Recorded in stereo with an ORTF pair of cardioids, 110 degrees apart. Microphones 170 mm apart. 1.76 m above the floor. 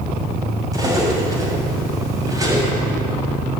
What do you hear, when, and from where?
0.7 s cutlery clinking: 20° right, 6.5 m